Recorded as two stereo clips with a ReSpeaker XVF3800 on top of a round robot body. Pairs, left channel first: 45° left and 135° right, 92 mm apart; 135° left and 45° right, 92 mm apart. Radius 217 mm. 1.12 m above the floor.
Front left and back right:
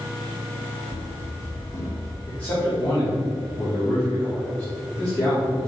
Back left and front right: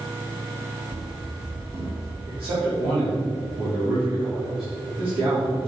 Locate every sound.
0.9 s running footsteps: 10° right, 2.5 m; by 2.2 s 15° right, 3 m
2.3 s a man speaking: 30° right, 4 m